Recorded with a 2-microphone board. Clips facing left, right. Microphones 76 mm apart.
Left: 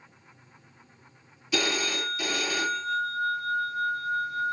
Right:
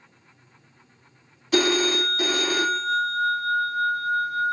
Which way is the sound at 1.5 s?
50° right (ahead or behind).